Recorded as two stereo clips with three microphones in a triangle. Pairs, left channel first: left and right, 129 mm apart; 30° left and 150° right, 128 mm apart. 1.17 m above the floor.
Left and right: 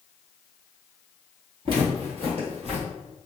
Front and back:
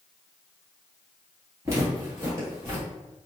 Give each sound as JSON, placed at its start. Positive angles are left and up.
{"t": 1.6, "sound": "footsteps", "azimuth_deg": -95, "distance_m": 1.5}